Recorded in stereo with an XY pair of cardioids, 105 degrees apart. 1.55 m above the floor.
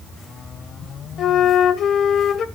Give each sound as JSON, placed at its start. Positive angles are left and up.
{"t": 1.2, "sound": "a flute", "azimuth_deg": 65, "distance_m": 1.4}